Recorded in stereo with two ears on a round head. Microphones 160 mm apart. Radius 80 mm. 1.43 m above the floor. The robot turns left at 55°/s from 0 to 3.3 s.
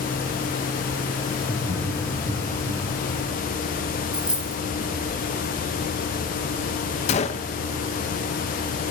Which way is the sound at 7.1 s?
40° left (ahead or behind).